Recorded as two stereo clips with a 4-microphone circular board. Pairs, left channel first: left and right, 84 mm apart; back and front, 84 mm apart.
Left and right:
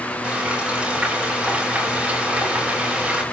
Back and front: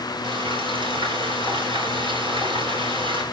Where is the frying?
10° right, 9.5 m.